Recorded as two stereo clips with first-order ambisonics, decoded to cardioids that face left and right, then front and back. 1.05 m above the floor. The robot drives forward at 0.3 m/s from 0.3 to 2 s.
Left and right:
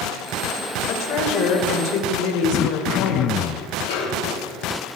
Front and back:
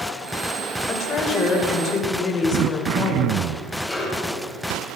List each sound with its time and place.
0.9 s a woman speaking: 60° left, 5 m; by 3.4 s 65° left, 4.5 m
2.5 s throat clearing: 140° left, 0.5 m
3.9 s a snare drum: 85° left, 6.5 m